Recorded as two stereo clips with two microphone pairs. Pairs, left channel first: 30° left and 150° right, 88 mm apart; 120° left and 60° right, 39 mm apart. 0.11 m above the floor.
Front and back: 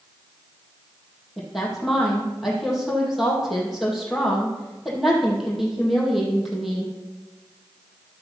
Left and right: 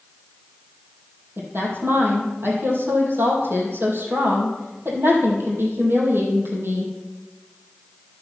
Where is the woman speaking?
65° right, 4 m.